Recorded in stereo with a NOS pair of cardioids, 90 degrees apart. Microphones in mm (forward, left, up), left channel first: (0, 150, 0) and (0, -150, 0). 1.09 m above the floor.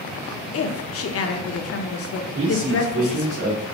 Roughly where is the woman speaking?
Ahead left.